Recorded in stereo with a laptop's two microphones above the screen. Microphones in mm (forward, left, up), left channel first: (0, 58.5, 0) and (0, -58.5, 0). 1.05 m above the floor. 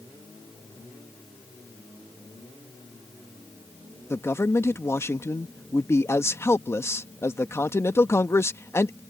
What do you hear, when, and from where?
4.1 s a man speaking: 25° left (ahead or behind)